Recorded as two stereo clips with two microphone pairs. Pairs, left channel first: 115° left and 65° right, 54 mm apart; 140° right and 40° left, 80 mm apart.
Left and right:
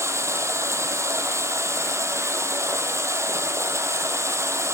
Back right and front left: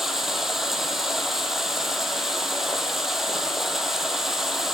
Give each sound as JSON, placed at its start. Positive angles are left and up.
{"t": 0.0, "sound": "running water", "azimuth_deg": -45, "distance_m": 1.3}